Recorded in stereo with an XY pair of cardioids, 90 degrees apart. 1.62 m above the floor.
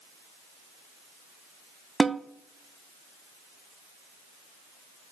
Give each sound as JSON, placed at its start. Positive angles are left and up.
{"t": 2.0, "sound": "a snare drum", "azimuth_deg": -30, "distance_m": 0.5}